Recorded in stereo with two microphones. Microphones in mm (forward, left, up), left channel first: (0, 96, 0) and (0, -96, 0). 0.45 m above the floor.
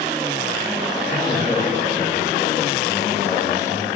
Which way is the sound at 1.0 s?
15° left (ahead or behind).